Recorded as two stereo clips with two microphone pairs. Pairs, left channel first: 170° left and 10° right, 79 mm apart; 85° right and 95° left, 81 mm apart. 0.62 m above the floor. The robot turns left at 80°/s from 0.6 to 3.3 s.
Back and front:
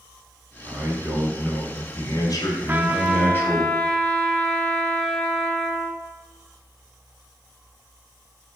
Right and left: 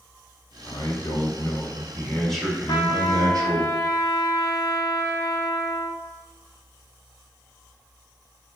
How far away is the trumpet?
About 0.7 m.